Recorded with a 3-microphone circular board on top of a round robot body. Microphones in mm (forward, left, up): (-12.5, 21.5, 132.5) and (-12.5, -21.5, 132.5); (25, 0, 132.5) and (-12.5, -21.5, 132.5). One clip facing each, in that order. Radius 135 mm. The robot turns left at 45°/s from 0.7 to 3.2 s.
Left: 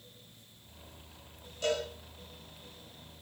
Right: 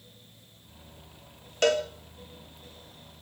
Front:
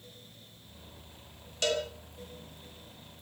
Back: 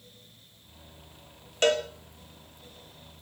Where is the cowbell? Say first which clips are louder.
Right 8 dB, back 6 dB; 100° right, 3 m; by 1.9 s 110° right, 3 m.